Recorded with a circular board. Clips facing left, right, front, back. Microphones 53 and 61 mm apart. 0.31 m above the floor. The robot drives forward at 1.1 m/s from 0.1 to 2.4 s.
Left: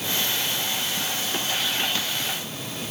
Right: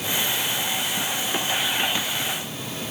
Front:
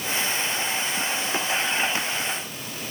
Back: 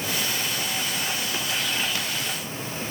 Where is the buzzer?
No buzzer in this recording.